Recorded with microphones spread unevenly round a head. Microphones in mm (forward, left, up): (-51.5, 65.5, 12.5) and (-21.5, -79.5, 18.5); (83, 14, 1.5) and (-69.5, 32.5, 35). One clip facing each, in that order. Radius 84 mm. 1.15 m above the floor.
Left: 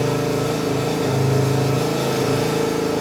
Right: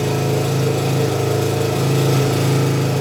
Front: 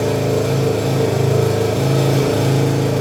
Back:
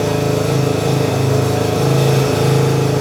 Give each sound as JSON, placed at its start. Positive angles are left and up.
{"t": 0.0, "sound": "an engine running", "azimuth_deg": -85, "distance_m": 9.5}